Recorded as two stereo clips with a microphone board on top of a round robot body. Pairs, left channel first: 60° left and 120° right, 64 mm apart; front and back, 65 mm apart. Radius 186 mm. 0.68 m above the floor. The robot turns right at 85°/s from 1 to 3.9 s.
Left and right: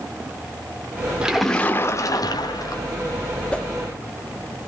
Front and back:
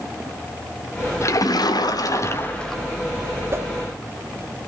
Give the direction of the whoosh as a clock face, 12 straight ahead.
8 o'clock.